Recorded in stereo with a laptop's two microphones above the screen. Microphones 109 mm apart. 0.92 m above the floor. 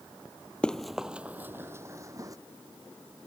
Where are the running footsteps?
10° left (ahead or behind); by 2.4 s 30° right (ahead or behind).